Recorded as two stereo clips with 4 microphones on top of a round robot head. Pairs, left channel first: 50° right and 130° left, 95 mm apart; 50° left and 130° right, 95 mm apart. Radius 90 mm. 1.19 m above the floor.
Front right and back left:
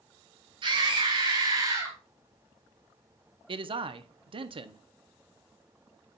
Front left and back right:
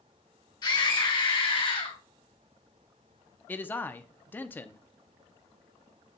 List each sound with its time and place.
0.6 s a scream: 100° left, 4 m; by 2.0 s 85° left, 3 m
3.5 s a man speaking: 120° left, 0.9 m